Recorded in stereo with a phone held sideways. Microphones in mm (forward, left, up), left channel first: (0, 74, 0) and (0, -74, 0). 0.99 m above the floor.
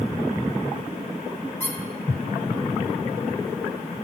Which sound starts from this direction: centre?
A squeak, at 1.6 s.